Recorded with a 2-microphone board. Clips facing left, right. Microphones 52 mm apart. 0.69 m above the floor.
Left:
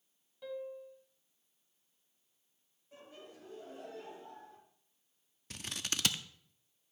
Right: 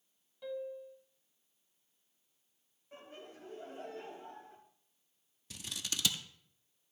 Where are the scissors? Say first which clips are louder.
Left 2 dB; 50° left (ahead or behind), 0.5 m.